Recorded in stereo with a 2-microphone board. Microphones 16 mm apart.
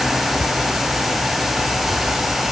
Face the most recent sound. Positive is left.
No sound to turn to.